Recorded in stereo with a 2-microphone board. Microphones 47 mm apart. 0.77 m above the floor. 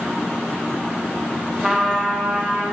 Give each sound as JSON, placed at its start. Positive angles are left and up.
{"t": 1.6, "sound": "a trumpet", "side_deg": -10, "distance_m": 0.6}